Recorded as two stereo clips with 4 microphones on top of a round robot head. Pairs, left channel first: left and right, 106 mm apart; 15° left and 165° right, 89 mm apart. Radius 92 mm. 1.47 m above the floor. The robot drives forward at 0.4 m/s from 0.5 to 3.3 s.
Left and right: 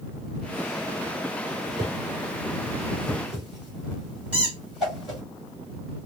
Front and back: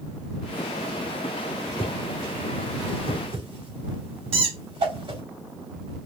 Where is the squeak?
170° right, 2.5 m.